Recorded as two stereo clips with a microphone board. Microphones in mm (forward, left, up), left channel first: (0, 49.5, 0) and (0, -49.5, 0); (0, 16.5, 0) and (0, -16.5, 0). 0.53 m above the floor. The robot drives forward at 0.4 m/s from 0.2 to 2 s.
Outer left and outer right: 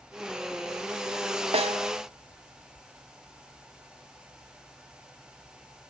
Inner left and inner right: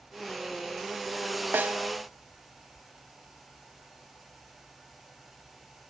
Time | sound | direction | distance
1.5 | a snare drum | 80° right | 0.8 m